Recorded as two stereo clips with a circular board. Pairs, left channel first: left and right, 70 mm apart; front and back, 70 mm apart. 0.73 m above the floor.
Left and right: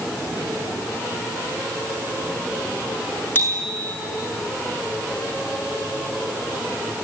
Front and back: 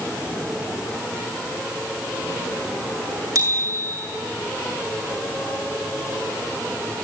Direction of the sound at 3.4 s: 155° left.